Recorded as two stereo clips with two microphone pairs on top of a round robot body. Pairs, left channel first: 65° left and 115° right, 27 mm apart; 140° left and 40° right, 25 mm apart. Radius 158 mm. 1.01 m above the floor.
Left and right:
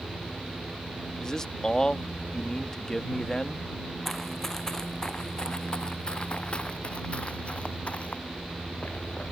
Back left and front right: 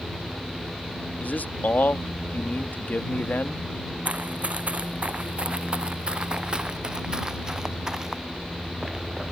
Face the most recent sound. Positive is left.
turn(degrees=35)